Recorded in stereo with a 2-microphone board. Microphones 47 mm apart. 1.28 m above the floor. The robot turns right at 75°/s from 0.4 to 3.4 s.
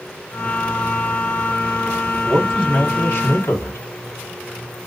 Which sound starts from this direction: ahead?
A man speaking, at 2.2 s.